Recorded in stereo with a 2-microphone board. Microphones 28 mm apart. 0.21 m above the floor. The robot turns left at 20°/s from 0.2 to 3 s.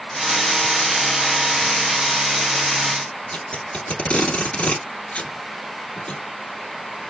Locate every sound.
3.3 s tape being pulled: 40° left (ahead or behind), 1.3 m